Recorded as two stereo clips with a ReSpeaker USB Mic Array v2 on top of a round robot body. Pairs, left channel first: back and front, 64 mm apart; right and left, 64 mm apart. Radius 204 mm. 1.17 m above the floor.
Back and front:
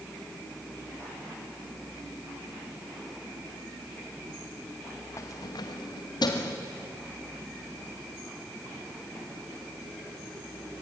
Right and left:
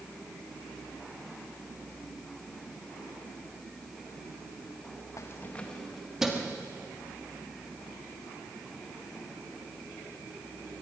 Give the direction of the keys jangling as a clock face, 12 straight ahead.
4 o'clock.